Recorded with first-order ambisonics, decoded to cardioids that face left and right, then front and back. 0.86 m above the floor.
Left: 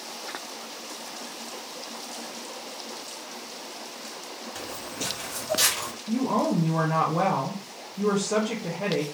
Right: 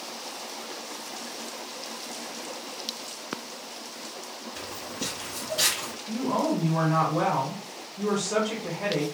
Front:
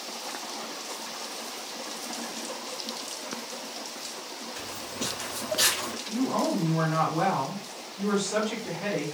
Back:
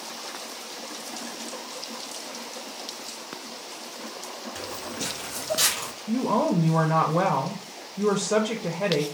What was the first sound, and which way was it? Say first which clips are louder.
Footsteps: left 1 dB, back 2 dB; 130° left.